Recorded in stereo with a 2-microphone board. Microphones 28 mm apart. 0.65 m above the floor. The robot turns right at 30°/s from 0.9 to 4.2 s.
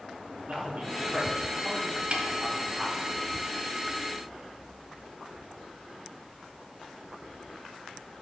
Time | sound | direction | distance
0.5 | a man speaking | 50° right (ahead or behind) | 1.7 m
2.1 | a snare drum | 40° right (ahead or behind) | 0.7 m